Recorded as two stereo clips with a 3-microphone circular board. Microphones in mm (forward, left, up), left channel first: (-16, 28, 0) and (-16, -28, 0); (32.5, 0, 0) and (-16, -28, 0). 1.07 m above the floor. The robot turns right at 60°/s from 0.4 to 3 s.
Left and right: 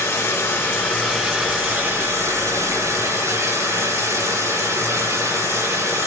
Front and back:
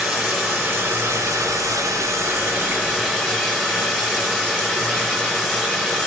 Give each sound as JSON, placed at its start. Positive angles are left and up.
{"t": 0.0, "sound": "running water", "azimuth_deg": 130, "distance_m": 6.0}